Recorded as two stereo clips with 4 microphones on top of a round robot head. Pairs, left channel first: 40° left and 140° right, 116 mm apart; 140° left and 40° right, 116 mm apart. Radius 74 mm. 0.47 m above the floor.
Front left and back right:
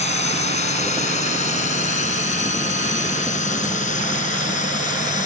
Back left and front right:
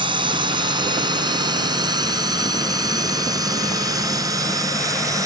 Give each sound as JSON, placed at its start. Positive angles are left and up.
{"t": 0.0, "sound": "a drone", "azimuth_deg": 10}